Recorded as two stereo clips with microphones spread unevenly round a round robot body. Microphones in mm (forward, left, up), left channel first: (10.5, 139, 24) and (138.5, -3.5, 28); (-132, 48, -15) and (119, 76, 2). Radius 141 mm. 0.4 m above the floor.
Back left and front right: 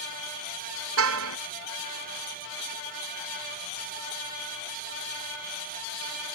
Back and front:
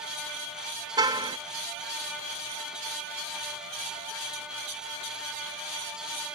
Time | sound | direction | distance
1.0 | a car horn | 70° right | ?